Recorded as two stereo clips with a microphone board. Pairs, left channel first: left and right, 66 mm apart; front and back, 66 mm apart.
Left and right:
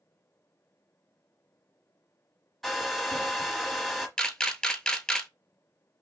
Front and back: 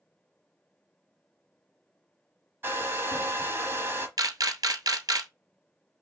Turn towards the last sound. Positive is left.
turn(degrees=170)